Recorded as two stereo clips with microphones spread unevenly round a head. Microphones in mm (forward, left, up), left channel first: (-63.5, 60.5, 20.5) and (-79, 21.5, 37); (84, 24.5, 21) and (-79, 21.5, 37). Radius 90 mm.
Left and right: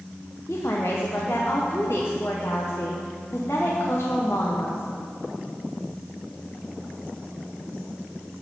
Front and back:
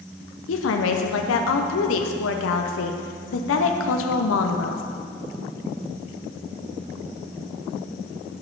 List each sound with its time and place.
0.5 s a woman speaking: 5° right, 0.6 m